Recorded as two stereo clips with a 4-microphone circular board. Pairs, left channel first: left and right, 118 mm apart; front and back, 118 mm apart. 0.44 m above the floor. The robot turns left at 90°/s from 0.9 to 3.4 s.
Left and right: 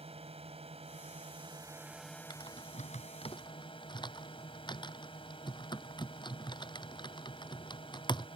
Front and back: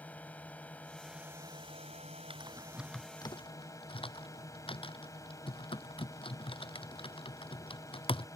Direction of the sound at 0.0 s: 75° right.